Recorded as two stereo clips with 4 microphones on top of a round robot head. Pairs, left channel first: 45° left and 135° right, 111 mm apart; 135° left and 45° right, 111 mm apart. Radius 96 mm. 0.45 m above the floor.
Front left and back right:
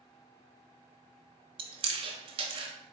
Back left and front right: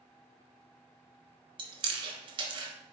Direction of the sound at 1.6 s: 90° right.